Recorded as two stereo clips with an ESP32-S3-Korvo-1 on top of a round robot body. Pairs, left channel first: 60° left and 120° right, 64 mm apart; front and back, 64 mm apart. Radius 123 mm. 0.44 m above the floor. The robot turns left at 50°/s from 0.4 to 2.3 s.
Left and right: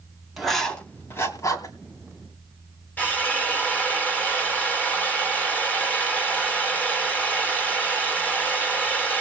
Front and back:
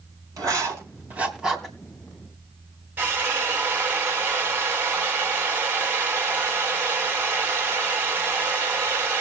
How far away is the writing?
About 2.5 m.